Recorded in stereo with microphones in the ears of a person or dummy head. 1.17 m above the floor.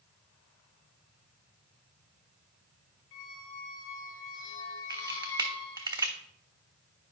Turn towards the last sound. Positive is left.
turn(degrees=-20)  # may be behind; listen again after turning